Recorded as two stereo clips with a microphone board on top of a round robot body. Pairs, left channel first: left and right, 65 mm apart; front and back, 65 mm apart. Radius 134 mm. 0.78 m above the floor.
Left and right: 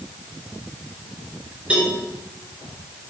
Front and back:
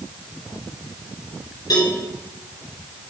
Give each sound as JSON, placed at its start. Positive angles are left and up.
{"t": 1.7, "sound": "a cowbell", "azimuth_deg": -15, "distance_m": 5.0}